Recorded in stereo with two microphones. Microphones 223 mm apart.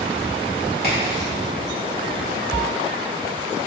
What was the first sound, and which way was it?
A crack, 45° left (ahead or behind).